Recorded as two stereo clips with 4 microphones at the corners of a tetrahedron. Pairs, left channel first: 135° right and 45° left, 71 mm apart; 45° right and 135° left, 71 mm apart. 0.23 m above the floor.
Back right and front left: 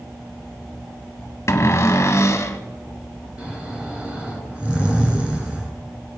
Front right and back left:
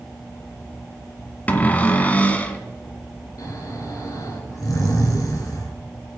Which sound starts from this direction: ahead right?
Snoring, at 3.4 s.